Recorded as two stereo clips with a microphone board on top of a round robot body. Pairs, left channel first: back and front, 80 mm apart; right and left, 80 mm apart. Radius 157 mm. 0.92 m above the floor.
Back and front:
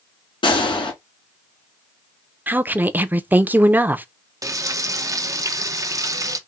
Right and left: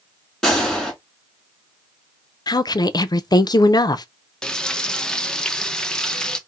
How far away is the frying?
About 0.8 m.